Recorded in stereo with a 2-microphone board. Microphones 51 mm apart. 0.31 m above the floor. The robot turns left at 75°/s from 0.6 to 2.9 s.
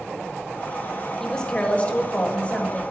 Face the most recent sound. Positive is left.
turn(degrees=35)